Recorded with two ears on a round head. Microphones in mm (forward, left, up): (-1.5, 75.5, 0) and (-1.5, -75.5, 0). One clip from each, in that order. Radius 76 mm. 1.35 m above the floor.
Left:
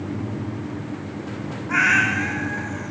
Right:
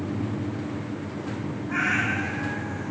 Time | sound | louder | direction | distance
1.7 | a cat meowing | left 7 dB | 50° left (ahead or behind) | 1.9 m